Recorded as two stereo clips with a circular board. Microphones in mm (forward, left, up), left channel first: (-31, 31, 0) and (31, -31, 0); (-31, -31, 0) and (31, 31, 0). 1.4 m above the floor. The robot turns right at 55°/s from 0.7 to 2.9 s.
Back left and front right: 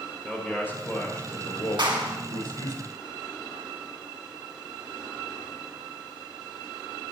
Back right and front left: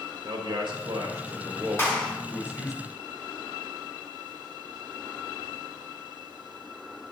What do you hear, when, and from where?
0.2 s a man speaking: 70° left, 4.5 m; by 2.8 s 175° right, 4.5 m
1.8 s a clap: 70° right, 2.5 m; by 2.1 s 55° right, 2.5 m